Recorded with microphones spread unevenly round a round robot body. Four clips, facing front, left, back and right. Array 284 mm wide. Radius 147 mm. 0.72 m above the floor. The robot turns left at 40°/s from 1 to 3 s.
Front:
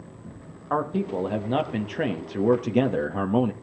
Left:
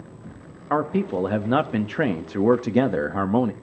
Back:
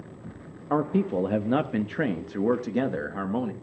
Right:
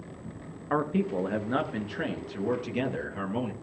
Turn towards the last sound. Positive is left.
turn(degrees=75)